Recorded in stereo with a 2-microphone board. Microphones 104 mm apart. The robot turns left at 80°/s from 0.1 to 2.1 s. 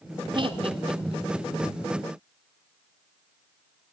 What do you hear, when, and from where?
0.3 s laughter: 50° right (ahead or behind), 1.4 m; by 1.5 s 35° right (ahead or behind), 1.4 m